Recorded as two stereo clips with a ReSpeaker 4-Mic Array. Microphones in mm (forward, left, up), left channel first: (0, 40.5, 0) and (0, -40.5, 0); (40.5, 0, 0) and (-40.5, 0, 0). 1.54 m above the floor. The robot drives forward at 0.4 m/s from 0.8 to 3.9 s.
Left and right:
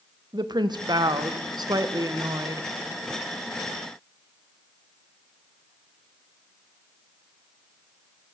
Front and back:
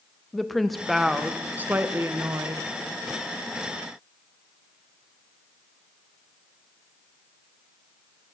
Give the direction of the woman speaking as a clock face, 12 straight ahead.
3 o'clock.